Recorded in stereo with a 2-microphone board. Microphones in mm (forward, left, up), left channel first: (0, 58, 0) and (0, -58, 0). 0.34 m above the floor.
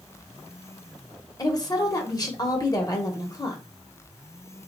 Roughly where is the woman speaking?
Left.